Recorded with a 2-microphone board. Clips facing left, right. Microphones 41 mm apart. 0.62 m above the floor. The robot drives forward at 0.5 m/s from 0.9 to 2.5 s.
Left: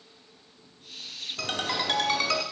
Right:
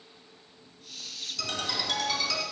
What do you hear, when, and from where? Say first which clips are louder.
1.4 s a ringtone: left 3 dB; 35° left (ahead or behind), 1.0 m; by 2.4 s 45° left (ahead or behind), 0.8 m